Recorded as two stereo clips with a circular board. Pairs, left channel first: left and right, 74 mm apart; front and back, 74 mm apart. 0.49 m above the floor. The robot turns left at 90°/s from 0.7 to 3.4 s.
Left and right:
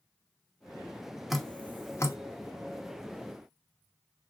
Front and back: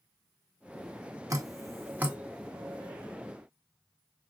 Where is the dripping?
175° right, 0.7 m; by 2.2 s 110° left, 0.7 m.